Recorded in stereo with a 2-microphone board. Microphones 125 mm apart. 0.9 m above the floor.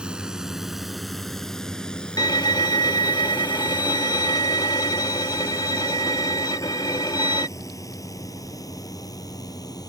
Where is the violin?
35° left (ahead or behind).